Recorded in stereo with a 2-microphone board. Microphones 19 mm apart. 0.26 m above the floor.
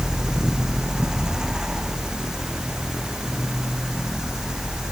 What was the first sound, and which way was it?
Only background noise.